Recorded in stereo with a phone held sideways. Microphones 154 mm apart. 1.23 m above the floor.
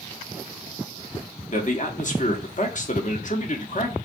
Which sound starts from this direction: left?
A man speaking, at 1.5 s.